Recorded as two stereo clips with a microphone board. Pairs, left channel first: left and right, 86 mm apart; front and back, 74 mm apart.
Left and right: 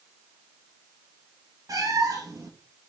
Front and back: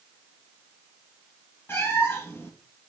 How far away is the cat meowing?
About 1.7 m.